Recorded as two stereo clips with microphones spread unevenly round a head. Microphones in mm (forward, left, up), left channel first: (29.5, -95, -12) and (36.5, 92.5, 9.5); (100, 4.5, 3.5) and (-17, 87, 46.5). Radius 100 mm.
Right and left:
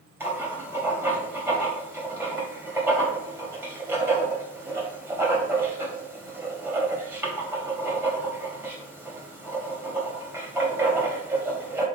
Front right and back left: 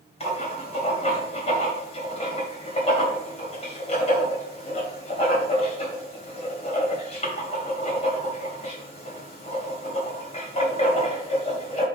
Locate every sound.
0.2 s writing: 10° left, 3 m